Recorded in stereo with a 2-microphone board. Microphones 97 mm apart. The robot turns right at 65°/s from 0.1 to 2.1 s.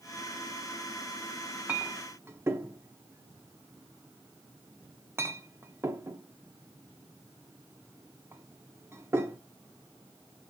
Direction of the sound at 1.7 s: 15° right (ahead or behind).